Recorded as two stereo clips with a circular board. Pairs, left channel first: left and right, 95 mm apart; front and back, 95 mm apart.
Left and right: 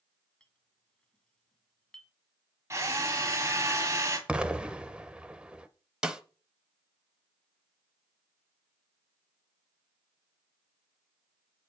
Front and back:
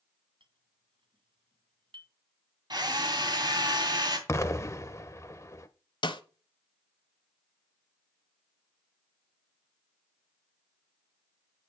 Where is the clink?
170° left, 1.9 m.